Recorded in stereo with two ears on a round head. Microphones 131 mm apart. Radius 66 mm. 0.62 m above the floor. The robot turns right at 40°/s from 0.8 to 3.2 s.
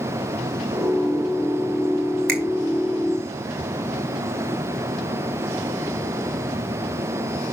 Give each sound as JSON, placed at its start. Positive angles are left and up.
{"t": 2.3, "sound": "a finger snap", "side_deg": -70, "distance_m": 3.0}